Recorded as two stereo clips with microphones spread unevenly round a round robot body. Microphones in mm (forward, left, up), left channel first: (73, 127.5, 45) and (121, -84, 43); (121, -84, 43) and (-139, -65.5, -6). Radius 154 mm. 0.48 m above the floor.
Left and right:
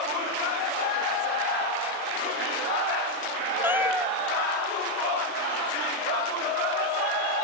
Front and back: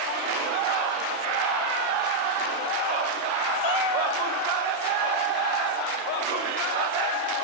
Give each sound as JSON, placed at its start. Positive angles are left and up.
{"t": 3.6, "sound": "a cat meowing", "azimuth_deg": 5}